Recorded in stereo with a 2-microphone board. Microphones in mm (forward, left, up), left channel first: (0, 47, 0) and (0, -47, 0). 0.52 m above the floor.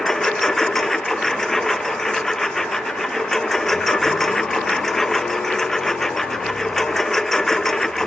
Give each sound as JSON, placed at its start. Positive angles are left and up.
{"t": 0.0, "sound": "a lawn mower", "side_deg": 5}